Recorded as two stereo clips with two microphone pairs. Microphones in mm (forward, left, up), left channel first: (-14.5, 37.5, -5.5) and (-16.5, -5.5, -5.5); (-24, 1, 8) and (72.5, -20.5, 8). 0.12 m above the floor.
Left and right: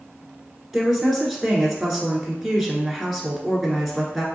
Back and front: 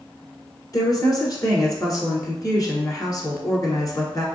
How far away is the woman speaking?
About 1.3 m.